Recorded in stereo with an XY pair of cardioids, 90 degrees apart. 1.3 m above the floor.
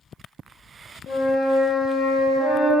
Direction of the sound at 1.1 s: 65° left.